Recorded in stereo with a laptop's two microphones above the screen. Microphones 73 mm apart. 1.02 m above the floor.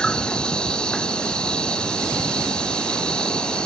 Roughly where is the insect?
Centre.